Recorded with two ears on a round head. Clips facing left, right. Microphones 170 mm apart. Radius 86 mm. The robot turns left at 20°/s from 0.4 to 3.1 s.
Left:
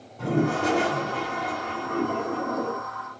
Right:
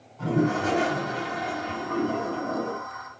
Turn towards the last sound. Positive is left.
turn(degrees=-35)